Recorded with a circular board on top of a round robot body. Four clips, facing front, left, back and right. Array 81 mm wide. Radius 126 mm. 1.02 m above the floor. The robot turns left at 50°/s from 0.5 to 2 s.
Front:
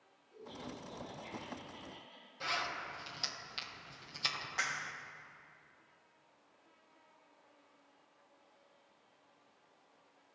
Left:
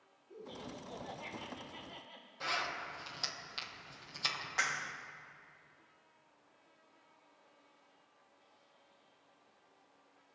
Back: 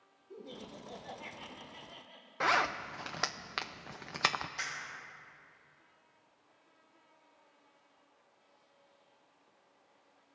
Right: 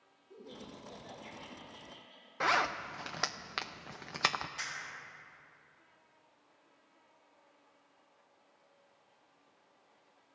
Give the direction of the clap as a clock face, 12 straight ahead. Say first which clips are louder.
Left 6 dB, front 3 dB; 10 o'clock.